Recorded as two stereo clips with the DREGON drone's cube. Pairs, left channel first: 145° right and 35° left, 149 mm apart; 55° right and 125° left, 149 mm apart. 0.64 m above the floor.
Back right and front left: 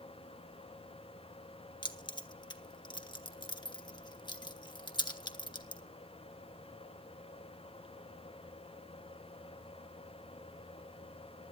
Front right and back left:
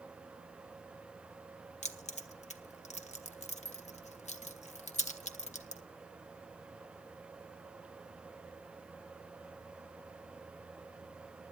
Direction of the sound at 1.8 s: 90° right.